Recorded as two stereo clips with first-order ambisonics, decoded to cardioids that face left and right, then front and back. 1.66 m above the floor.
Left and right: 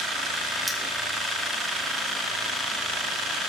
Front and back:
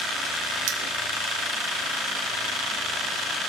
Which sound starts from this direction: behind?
Cutlery clinking, at 0.7 s.